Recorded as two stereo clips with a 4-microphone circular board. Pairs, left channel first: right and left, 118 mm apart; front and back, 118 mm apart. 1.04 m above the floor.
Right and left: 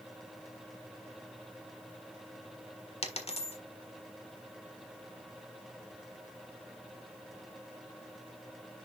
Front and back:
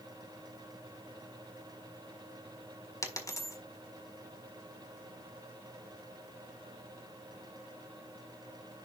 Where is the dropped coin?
60° right, 1.6 m.